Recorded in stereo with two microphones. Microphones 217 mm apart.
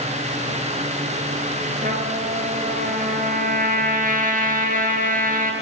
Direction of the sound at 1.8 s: 40° right (ahead or behind).